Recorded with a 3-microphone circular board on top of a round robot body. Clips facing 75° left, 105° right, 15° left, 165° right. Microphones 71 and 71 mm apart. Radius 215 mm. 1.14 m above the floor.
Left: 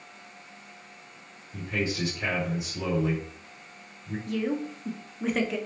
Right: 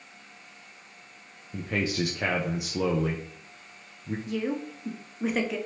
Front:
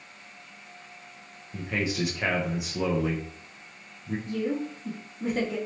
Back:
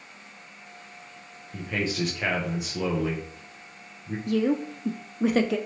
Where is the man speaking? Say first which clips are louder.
Right 1 dB, even; 70° right, 0.6 m.